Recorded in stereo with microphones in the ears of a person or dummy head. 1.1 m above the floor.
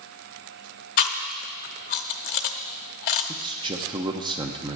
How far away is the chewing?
About 0.7 m.